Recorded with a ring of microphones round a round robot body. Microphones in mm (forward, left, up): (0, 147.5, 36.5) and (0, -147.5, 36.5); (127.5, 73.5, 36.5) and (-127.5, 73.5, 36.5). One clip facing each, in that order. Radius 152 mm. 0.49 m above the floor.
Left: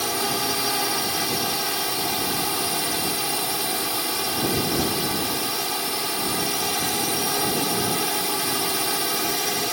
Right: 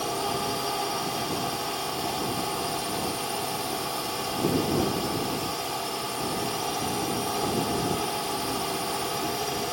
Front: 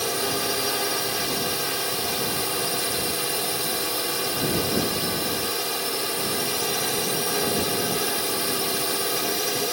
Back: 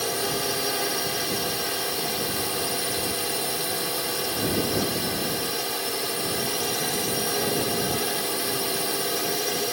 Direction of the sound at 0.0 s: 85° left.